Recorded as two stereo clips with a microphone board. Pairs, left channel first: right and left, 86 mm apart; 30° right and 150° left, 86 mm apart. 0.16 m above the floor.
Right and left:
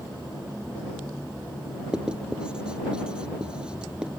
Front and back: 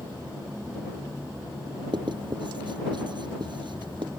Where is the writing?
170° left.